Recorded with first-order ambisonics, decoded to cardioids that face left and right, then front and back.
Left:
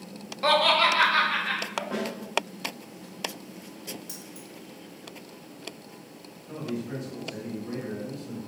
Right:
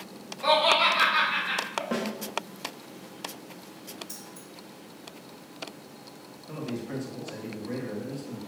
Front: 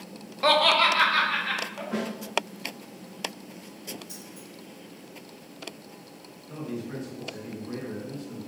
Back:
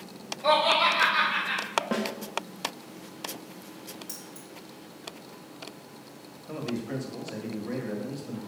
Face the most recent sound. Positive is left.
turn(degrees=-165)